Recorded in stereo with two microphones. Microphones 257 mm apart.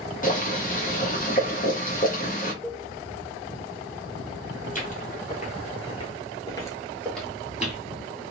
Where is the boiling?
30° left (ahead or behind), 0.8 m.